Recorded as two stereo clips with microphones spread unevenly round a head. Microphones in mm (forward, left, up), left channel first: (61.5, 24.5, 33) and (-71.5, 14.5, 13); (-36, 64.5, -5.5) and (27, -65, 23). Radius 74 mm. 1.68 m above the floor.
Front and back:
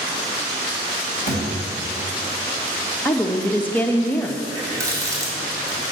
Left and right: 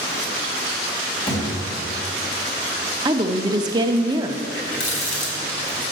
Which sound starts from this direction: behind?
A thud, at 1.3 s.